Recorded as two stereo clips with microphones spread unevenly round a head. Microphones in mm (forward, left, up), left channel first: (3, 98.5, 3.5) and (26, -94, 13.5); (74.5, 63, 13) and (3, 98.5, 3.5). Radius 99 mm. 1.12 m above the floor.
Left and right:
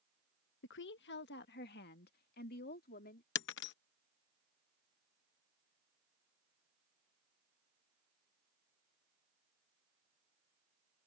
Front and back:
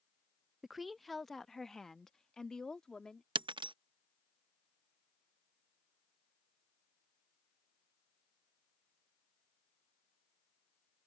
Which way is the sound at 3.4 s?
135° left.